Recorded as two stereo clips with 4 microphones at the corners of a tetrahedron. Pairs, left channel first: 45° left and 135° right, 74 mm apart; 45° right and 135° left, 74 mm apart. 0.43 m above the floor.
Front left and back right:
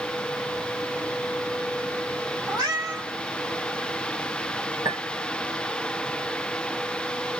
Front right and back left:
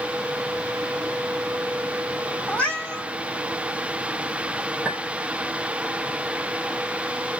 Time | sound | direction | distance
2.5 | a cat meowing | 115° right | 3 m
4.8 | a clink | 155° right | 2.5 m